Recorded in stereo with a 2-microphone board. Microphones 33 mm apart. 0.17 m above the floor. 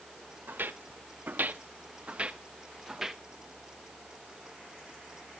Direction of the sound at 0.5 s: 85° right.